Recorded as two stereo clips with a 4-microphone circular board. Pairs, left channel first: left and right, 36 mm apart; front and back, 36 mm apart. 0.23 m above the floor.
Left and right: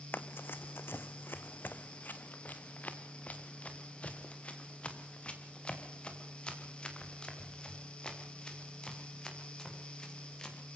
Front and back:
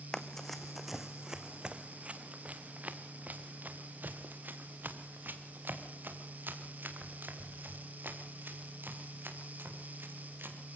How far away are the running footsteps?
About 1.0 m.